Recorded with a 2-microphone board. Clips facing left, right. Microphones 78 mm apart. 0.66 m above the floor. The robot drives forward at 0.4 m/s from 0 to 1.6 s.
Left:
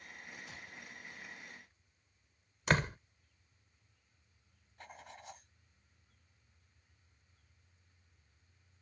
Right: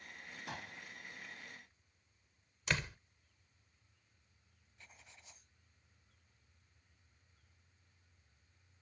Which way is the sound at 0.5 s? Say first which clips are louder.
Right 4 dB; 85° right.